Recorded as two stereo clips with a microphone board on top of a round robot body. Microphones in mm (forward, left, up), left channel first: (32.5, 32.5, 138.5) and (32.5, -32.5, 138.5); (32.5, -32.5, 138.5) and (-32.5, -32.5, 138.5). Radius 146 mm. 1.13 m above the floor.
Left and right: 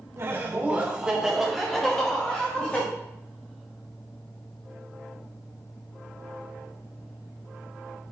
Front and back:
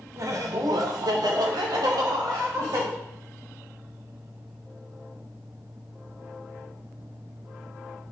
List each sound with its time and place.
0.2 s laughter: 140° right, 1.2 m; by 2.9 s 160° left, 2 m